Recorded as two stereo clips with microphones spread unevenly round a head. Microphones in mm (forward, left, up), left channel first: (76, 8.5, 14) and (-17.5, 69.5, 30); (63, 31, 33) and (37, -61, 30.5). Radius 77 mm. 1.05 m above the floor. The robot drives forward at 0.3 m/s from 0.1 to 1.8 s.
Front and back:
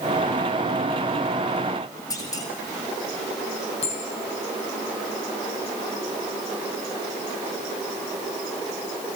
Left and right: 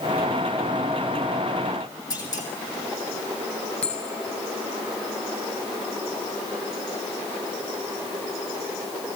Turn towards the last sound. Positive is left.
turn(degrees=0)